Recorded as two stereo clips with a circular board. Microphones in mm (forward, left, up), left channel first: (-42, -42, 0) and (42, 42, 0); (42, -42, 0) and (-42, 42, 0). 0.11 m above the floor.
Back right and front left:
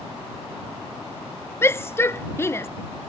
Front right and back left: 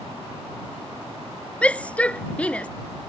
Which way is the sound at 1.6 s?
110° right.